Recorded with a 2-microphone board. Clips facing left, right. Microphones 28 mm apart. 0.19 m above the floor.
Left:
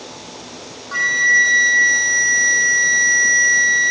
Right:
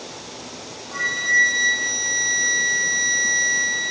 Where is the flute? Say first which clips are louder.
Left 5 dB; 50° left (ahead or behind), 1.2 m.